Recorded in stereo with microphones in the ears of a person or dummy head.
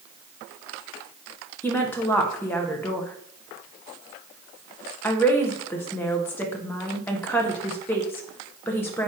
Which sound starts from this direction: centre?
A woman speaking, at 1.6 s.